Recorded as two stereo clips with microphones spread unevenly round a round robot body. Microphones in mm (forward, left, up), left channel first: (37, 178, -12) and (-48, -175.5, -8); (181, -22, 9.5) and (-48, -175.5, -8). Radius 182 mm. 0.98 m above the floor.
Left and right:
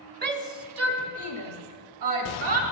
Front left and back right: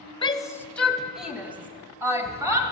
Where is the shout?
40° right, 0.9 m; by 2.6 s 65° right, 2.5 m.